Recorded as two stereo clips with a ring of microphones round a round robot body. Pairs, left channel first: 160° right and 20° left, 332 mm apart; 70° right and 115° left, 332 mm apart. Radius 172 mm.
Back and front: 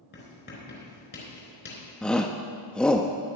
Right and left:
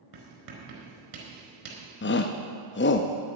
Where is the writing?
140° left, 4 m.